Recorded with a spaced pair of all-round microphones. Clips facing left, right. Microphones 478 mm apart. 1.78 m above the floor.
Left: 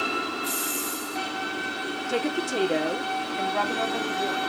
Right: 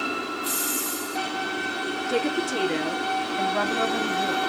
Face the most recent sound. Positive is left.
turn(degrees=-40)  # may be behind; listen again after turning